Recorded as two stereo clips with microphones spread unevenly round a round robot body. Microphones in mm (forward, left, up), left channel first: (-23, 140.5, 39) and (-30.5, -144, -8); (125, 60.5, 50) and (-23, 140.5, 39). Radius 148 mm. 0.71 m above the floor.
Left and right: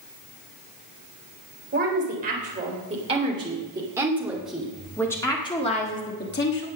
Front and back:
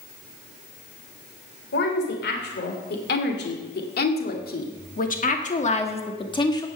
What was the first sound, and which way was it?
A woman speaking, 30° right.